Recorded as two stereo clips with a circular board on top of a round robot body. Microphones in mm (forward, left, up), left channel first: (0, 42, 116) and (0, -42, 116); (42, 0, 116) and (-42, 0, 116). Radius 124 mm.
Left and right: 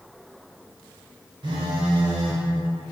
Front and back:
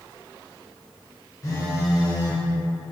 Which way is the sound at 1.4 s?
50° right.